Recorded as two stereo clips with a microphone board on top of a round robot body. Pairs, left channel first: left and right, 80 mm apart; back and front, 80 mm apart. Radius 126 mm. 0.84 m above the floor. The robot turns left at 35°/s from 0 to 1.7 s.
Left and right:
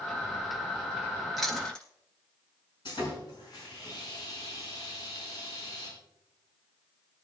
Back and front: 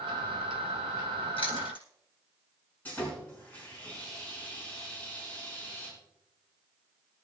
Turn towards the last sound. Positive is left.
turn(degrees=110)